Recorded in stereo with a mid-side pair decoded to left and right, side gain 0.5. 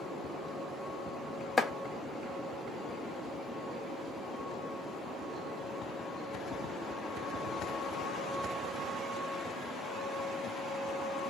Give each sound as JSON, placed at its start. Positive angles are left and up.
{"t": 1.6, "sound": "chopping", "azimuth_deg": 15, "distance_m": 0.8}